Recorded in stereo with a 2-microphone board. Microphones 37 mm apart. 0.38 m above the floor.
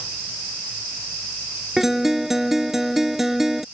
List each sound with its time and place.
1.8 s a guitar: 10° right (ahead or behind)